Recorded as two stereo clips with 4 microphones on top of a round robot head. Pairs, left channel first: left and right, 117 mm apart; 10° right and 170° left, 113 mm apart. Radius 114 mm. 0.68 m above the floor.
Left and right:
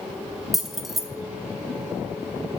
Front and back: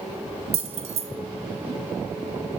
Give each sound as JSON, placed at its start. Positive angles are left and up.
{"t": 0.5, "sound": "keys jangling", "azimuth_deg": 180, "distance_m": 0.8}